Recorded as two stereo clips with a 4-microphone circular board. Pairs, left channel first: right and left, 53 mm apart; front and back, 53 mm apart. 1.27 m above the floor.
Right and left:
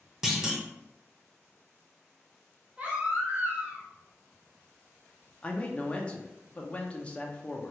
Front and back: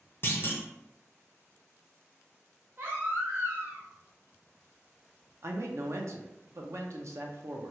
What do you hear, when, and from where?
0.2 s a clunk: 10° left, 0.6 m
2.8 s a baby crying: 145° left, 0.8 m
5.4 s a man speaking: 155° right, 0.5 m